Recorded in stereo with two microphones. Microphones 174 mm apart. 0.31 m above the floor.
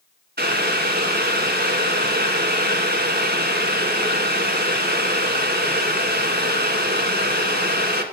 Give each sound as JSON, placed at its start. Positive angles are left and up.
{"t": 0.4, "sound": "boiling", "side_deg": -70, "distance_m": 1.4}